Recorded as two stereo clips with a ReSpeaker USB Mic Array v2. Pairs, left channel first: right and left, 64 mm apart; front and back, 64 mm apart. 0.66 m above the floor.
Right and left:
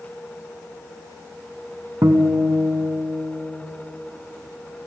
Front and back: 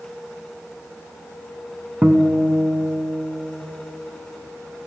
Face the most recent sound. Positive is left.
turn(degrees=120)